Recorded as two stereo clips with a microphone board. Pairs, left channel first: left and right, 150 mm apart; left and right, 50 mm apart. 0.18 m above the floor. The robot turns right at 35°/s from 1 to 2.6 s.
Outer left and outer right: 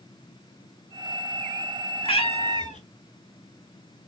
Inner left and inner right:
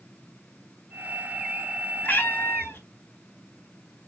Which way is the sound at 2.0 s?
35° left (ahead or behind).